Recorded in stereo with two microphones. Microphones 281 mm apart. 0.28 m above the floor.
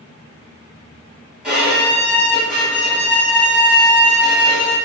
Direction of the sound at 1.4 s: 5° right (ahead or behind).